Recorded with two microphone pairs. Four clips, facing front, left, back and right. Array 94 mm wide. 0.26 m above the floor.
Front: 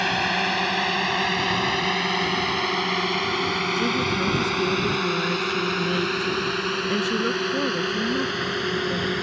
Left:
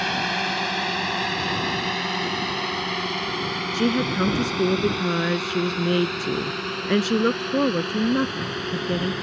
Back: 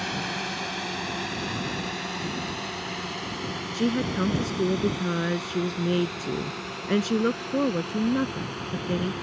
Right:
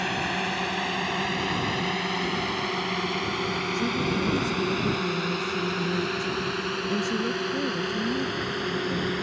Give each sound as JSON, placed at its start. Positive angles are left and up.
{"t": 0.0, "sound": "a drone", "azimuth_deg": 20}
{"t": 3.7, "sound": "a woman speaking", "azimuth_deg": 105}